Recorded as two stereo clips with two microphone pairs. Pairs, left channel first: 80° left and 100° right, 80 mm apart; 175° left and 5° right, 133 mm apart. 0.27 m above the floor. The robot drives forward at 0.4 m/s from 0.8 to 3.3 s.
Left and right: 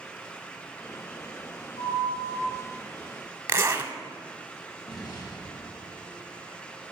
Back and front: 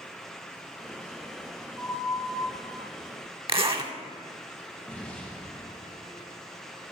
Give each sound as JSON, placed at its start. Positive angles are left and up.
{"t": 1.8, "sound": "a flute", "azimuth_deg": 85, "distance_m": 1.9}
{"t": 3.5, "sound": "a zipper", "azimuth_deg": -50, "distance_m": 0.7}
{"t": 4.9, "sound": "an explosion", "azimuth_deg": 95, "distance_m": 2.5}